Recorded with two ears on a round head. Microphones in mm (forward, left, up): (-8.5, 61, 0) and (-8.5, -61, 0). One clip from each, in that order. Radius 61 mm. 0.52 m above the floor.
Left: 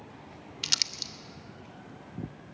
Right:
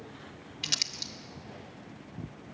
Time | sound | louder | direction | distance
0.6 | crumpling | left 2 dB | 20° left (ahead or behind) | 0.7 m